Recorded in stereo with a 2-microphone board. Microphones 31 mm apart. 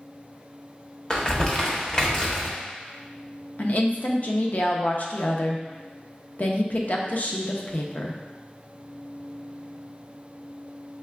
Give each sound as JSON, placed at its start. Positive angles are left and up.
{"t": 1.1, "sound": "crumpling", "side_deg": 30, "distance_m": 0.8}
{"t": 3.6, "sound": "a woman speaking", "side_deg": 55, "distance_m": 0.6}